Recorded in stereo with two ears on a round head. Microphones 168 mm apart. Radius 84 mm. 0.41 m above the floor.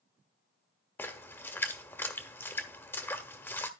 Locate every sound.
1.0 s a splash: 10° left (ahead or behind), 1.2 m